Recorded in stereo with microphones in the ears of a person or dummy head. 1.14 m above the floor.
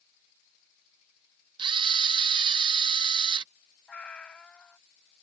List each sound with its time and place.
1.6 s a camera shutter: 25° right (ahead or behind)
3.9 s a cat meowing: 5° left (ahead or behind)